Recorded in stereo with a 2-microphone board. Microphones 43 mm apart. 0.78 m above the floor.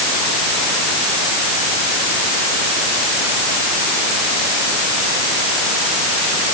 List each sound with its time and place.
Only background noise.